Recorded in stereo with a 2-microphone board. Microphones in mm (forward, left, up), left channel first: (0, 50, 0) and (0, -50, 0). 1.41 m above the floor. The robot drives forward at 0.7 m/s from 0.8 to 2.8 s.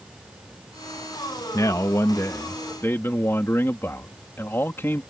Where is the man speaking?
35° left (ahead or behind); by 5.0 s 20° left (ahead or behind).